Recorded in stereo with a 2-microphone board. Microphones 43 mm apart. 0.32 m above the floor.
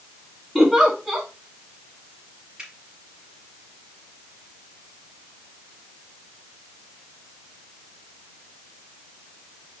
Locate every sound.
0.6 s a giggle: 5° right (ahead or behind), 3.5 m
2.6 s a finger snap: 15° right (ahead or behind), 5.5 m